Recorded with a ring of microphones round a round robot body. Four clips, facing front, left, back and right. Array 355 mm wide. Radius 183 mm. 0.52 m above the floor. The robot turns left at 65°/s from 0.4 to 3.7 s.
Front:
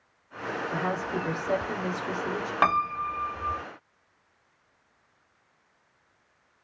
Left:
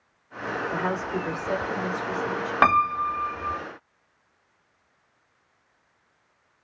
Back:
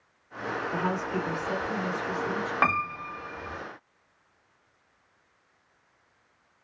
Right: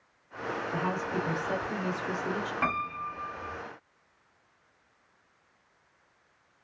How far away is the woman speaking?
About 1.1 m.